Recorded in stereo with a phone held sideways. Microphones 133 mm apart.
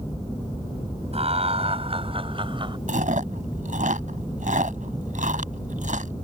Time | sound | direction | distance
1.1 | laughter | 50° right (ahead or behind) | ?
2.9 | chewing | 75° right (ahead or behind) | ?